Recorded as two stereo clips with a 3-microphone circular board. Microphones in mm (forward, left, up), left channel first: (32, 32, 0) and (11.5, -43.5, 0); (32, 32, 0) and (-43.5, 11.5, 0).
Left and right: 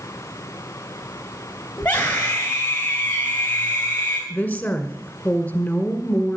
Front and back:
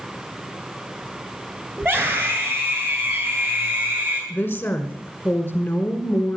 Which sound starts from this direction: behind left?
A scream, at 1.8 s.